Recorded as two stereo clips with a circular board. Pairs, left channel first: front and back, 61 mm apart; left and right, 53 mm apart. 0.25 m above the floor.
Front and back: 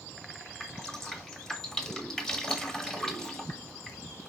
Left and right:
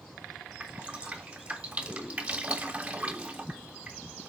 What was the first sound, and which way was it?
Dripping, 70° right.